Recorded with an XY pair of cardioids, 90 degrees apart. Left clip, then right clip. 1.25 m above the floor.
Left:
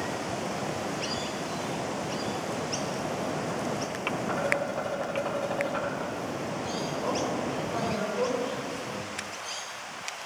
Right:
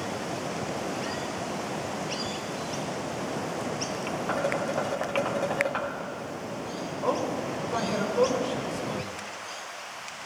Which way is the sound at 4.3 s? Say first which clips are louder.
Right 2 dB; 40° right.